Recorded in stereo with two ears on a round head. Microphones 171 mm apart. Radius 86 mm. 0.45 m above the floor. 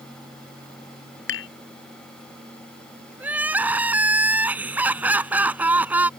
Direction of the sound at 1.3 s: 70° left (ahead or behind).